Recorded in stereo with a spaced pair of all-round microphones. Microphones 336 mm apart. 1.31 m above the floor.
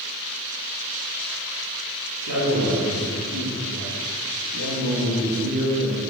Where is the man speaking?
70° right (ahead or behind), 4 m; by 6.0 s 55° right (ahead or behind), 2.5 m.